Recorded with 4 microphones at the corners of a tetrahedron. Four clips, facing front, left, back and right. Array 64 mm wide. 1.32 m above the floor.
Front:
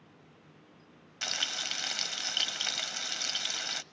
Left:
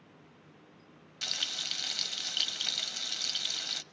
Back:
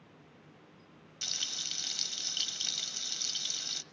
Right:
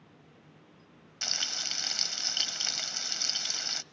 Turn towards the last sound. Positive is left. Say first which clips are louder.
# even, front 6 dB
turn(degrees=-25)